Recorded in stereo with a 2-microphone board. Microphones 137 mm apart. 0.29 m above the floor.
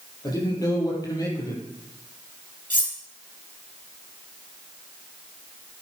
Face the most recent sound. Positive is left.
turn(degrees=85)